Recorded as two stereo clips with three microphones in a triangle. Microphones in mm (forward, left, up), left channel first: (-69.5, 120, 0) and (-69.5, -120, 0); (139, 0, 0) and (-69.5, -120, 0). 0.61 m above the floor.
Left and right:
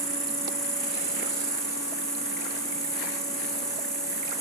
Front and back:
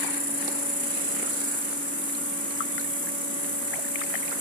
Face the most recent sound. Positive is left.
turn(degrees=165)